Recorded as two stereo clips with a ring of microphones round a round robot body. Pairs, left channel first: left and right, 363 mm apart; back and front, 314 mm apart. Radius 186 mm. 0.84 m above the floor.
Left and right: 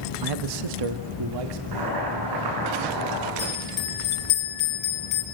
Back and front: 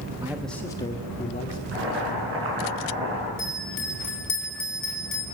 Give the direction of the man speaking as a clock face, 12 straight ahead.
3 o'clock.